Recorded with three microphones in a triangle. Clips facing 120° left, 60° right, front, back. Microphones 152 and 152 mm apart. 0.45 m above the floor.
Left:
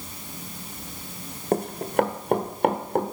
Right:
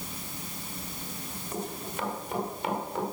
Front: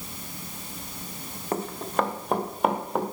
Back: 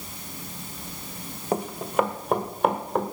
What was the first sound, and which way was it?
Running footsteps, 105° left.